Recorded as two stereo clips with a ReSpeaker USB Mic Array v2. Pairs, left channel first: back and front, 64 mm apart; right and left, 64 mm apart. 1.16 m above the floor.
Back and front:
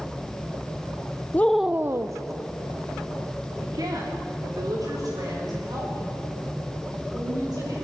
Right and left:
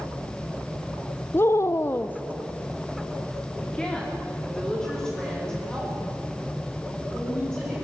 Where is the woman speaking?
130° right, 0.6 m; by 7.7 s 5° right, 7.5 m.